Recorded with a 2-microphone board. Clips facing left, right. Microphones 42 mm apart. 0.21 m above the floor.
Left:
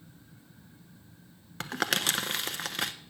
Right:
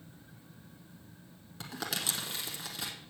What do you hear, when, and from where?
1.6 s crumpling: 65° left (ahead or behind), 0.8 m